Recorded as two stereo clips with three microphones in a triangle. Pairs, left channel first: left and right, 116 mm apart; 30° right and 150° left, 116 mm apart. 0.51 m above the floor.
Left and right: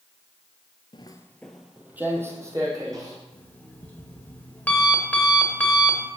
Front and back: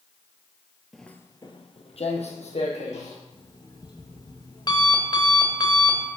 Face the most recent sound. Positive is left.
turn(degrees=15)